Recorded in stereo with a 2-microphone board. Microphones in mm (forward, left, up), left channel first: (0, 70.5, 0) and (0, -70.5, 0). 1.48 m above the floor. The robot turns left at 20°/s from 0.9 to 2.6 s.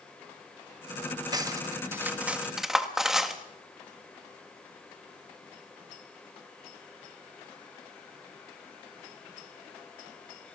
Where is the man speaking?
No man speaking in this recording.